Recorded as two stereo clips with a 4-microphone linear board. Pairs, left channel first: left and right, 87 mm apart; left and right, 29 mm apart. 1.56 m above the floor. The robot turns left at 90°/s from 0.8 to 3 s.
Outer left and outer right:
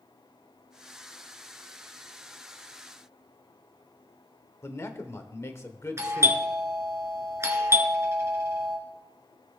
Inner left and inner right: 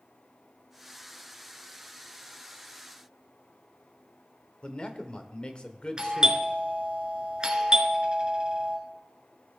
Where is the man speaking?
35° left (ahead or behind), 1.0 m.